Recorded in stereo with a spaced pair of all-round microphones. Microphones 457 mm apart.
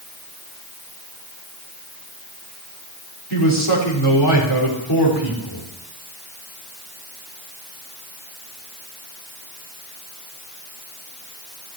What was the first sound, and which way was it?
A man speaking, 55° left (ahead or behind).